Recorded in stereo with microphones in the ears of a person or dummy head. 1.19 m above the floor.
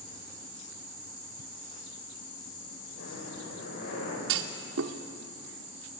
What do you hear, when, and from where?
2.9 s breathing: 75° left (ahead or behind), 6.5 m
4.3 s a clunk: 70° right (ahead or behind), 1.4 m